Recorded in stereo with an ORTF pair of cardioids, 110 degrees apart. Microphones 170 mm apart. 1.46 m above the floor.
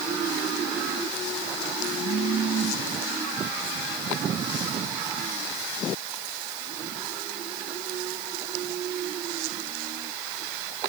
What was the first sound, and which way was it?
Only background noise.